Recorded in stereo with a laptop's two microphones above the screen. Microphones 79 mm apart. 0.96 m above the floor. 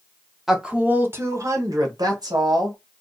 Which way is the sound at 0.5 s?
5° right (ahead or behind).